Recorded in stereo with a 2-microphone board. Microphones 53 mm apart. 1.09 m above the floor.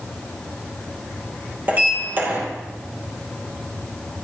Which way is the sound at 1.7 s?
35° right (ahead or behind).